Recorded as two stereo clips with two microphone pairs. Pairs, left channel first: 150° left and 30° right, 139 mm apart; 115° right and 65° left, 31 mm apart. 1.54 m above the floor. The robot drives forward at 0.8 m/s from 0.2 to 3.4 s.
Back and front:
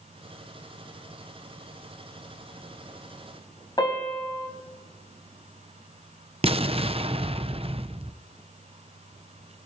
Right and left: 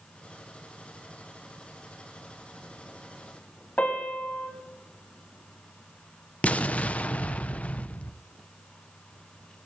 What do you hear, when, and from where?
3.8 s a piano: 150° right, 4 m
6.4 s an explosion: 75° right, 0.8 m